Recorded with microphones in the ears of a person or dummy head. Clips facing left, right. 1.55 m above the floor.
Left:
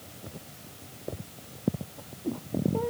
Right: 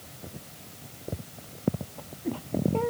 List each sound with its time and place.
Only background noise.